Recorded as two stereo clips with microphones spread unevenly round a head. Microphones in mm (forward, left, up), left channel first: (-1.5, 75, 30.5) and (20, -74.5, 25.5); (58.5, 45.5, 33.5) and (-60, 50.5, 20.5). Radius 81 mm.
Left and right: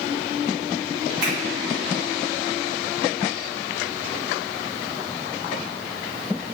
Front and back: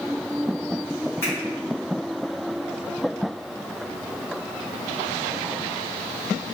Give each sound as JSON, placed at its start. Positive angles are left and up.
{"t": 1.2, "sound": "a finger snap", "azimuth_deg": -75, "distance_m": 1.7}